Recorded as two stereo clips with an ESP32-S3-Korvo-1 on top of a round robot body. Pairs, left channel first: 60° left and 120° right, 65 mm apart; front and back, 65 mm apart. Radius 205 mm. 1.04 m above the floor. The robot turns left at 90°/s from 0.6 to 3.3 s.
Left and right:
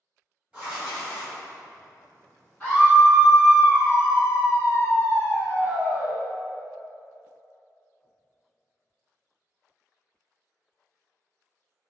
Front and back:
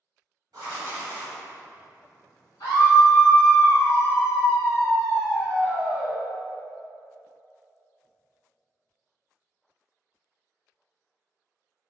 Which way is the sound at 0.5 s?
170° left.